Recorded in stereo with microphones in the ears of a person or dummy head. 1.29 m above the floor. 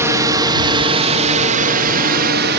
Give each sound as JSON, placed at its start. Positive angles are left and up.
{"t": 0.0, "sound": "a drone", "side_deg": -20}